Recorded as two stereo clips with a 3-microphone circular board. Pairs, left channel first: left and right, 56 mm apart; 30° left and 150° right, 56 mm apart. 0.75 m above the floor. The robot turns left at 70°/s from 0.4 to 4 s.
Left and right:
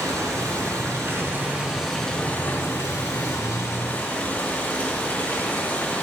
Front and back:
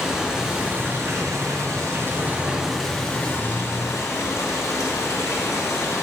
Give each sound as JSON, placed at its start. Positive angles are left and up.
{"t": 0.0, "sound": "running water", "azimuth_deg": -70, "distance_m": 4.0}